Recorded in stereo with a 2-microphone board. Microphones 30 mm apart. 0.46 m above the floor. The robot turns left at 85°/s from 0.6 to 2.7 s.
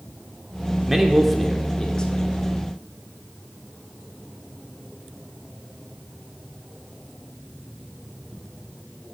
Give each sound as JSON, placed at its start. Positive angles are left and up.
{"t": 0.9, "sound": "a man speaking", "side_deg": -10, "distance_m": 0.8}